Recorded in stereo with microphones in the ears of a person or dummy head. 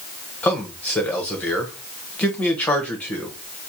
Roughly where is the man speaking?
Centre.